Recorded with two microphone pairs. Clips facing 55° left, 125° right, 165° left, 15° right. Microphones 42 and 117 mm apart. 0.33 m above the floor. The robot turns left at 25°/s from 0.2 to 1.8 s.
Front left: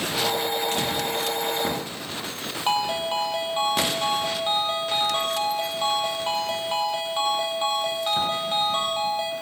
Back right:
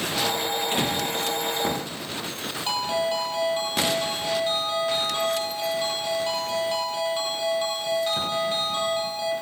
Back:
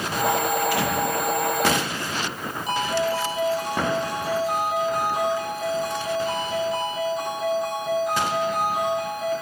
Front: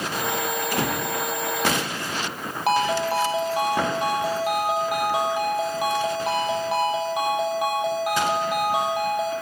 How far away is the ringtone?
About 5 m.